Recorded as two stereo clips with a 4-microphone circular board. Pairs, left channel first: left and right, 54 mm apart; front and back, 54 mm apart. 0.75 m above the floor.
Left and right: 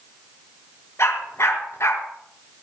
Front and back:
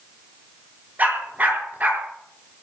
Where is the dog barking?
125° left, 5 m.